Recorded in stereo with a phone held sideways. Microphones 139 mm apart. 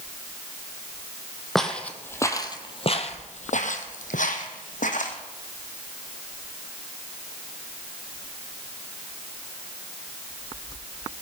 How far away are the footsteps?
About 2 m.